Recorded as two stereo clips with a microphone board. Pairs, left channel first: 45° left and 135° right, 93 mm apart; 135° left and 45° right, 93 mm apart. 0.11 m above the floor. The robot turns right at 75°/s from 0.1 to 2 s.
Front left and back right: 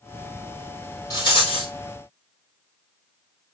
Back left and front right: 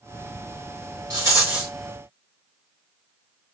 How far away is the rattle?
About 5.5 m.